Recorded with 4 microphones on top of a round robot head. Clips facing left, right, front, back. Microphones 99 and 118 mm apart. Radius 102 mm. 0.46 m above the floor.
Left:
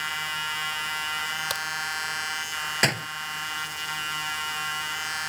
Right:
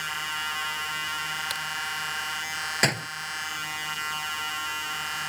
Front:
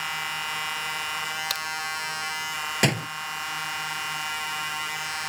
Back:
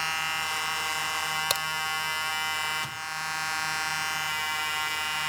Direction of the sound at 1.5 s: 145° left.